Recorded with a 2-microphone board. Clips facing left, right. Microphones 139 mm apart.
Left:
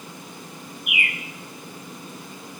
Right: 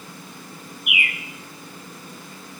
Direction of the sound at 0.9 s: 40° left (ahead or behind).